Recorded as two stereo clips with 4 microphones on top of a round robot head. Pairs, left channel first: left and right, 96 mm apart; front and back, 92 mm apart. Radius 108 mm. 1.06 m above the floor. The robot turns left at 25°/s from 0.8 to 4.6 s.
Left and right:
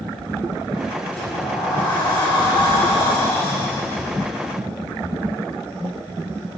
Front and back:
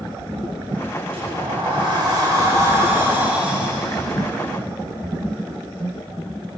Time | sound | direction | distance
1.1 | a sliding door | 165° left | 9 m